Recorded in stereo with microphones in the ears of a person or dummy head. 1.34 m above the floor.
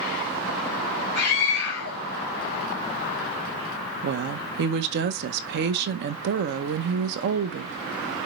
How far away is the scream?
About 1.7 m.